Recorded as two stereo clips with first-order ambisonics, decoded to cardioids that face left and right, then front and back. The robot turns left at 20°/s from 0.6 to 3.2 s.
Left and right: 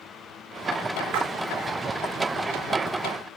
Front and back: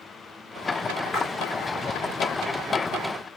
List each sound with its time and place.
1.1 s a splash: 90° right, 3 m; by 1.3 s 95° right, 3 m